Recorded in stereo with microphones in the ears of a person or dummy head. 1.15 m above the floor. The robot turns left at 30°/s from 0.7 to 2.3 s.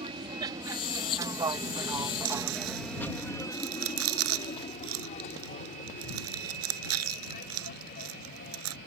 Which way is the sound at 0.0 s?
30° right (ahead or behind).